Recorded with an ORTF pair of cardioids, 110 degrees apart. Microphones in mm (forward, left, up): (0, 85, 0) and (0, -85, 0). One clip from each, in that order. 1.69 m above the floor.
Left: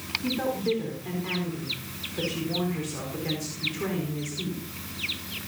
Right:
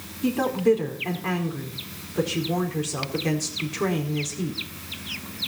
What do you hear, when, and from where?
0.2 s a woman speaking: 45° right, 4.5 m